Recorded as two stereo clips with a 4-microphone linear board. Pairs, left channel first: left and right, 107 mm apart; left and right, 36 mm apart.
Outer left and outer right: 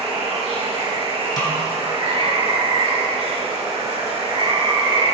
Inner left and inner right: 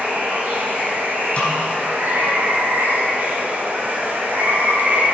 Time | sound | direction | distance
0.0 | running water | 75° right (ahead or behind) | 2 m
1.4 | a snare drum | 40° left (ahead or behind) | 2.5 m